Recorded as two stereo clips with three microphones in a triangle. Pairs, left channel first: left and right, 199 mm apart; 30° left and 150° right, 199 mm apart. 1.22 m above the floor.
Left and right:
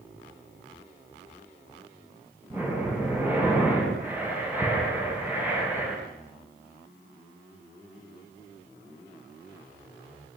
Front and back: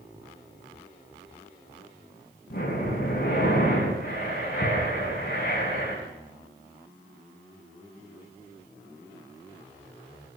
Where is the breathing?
10° right, 9 m.